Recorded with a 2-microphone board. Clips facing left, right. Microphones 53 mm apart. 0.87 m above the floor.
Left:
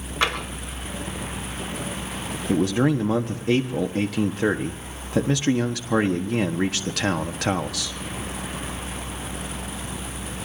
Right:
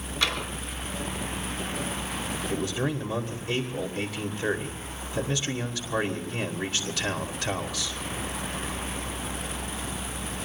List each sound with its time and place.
0.2 s tapping: 40° left (ahead or behind), 4 m
2.5 s a man speaking: 65° left (ahead or behind), 1.2 m